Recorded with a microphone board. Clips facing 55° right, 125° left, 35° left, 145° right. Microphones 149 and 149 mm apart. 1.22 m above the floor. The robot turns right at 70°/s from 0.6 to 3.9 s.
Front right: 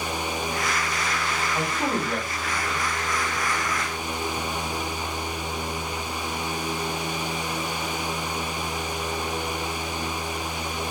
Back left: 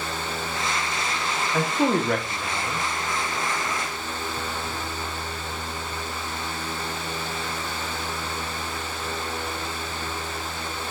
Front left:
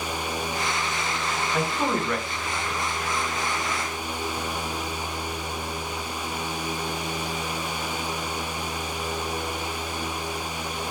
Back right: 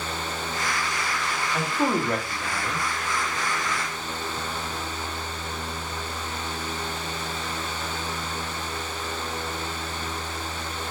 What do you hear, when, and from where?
1.5 s a man speaking: 110° left, 0.7 m; by 2.9 s 155° right, 0.7 m